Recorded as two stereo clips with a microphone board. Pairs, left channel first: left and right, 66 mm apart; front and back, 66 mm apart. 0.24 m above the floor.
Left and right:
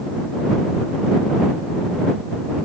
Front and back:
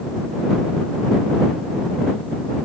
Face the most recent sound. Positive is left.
No sound to turn to.